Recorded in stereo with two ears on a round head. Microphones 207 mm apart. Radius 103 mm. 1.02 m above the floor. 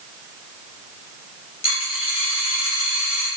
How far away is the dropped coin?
About 4.5 m.